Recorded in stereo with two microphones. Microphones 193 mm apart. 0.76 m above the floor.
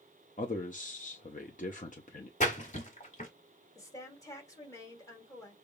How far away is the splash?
About 1.8 m.